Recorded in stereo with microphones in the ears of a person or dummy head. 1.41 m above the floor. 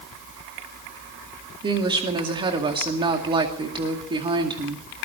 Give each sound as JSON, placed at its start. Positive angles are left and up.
{"t": 1.6, "sound": "a woman speaking", "side_deg": -25, "distance_m": 2.0}